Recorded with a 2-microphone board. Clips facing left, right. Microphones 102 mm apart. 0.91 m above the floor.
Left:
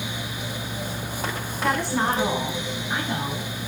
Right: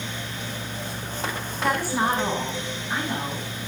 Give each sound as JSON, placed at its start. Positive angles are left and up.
{"t": 1.6, "sound": "a woman speaking", "side_deg": 0, "distance_m": 7.0}